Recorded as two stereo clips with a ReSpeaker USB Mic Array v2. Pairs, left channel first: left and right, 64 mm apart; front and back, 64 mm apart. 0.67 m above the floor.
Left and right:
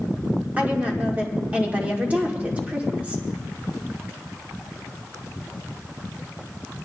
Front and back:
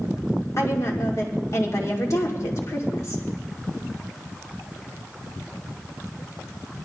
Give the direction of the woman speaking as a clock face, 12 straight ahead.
1 o'clock.